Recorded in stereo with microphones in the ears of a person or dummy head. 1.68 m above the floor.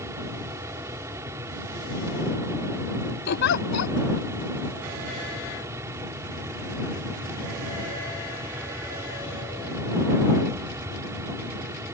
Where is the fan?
20° right (ahead or behind).